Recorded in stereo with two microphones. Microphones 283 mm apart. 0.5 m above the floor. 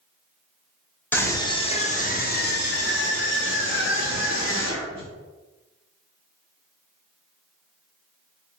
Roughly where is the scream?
Centre.